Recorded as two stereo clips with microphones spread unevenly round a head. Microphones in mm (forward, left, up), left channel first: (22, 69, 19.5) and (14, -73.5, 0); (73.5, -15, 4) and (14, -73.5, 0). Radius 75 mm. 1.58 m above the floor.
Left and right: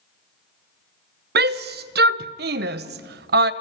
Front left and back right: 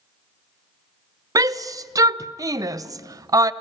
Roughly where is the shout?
Right.